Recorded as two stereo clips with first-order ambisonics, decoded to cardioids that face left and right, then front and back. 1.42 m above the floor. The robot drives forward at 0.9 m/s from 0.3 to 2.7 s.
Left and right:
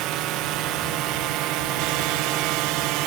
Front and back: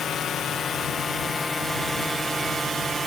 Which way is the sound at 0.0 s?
65° right.